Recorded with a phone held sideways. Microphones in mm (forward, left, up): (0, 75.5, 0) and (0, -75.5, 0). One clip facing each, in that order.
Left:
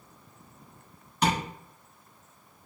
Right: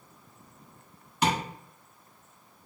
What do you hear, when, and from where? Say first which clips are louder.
1.2 s tapping: even; 5° right (ahead or behind), 1.5 m